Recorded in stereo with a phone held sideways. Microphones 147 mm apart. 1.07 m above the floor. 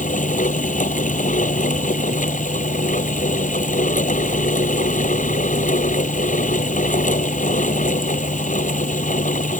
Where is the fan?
60° left (ahead or behind).